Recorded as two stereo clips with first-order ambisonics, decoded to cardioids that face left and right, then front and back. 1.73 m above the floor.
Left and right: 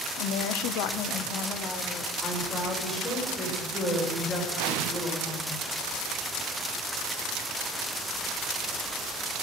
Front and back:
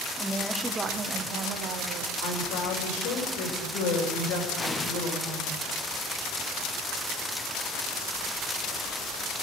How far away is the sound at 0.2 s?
About 1.0 m.